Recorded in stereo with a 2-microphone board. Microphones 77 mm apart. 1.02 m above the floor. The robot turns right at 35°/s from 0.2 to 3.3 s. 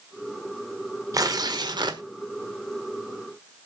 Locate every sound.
1.1 s tearing paper: 130° right, 1.4 m; by 2.0 s 100° right, 1.4 m